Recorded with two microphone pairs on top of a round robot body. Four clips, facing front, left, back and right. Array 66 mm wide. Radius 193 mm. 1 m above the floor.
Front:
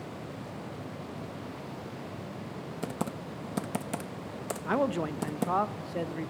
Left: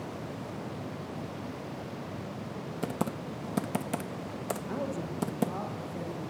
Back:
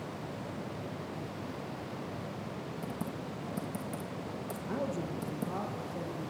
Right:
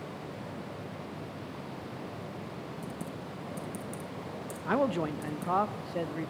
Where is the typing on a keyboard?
50° left, 0.6 m.